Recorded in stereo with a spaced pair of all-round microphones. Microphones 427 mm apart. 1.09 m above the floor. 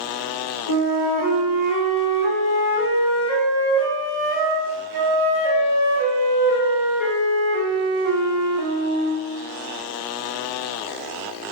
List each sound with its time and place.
0.7 s a flute: 45° left (ahead or behind), 2 m